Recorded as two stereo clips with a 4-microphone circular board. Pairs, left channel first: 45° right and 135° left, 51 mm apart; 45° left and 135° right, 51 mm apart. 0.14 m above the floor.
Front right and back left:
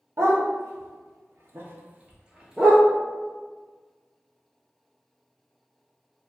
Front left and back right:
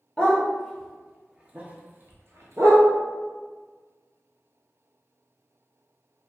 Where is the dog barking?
120° left, 1.0 m; by 2.9 s 135° right, 0.8 m.